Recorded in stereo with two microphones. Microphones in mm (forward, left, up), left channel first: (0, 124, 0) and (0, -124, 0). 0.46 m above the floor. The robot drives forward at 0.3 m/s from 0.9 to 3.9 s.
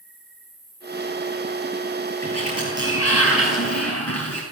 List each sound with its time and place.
0.0 s an insect: 35° right (ahead or behind), 9.5 m; by 4.5 s 30° right (ahead or behind), 10.5 m
2.2 s a sliding door: 70° left (ahead or behind), 8.5 m; by 4.4 s 75° left (ahead or behind), 8.5 m